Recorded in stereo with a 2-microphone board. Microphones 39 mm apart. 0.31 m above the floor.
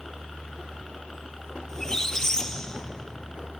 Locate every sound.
0.0 s a helicopter: 5° left (ahead or behind)
1.7 s a squeak: 15° left (ahead or behind)